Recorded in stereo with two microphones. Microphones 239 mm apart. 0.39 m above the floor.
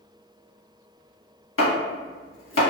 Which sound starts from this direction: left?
Chopping, at 1.6 s.